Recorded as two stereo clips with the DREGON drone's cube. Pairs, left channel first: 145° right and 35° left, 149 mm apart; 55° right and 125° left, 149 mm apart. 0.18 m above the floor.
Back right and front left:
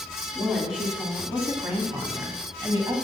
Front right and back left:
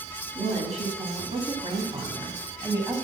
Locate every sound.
0.3 s a woman speaking: 125° left, 2 m; by 3.0 s 70° left, 1.5 m